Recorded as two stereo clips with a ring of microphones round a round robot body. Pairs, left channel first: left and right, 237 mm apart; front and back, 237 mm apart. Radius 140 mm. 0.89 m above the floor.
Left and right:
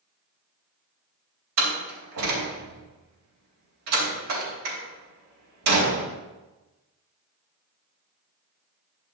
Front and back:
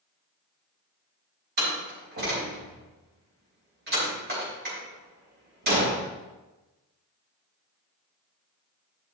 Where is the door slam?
125° right, 3.5 m.